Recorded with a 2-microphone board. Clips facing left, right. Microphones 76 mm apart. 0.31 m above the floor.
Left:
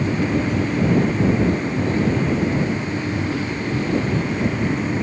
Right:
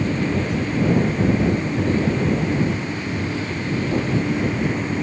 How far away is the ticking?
I don't hear ticking.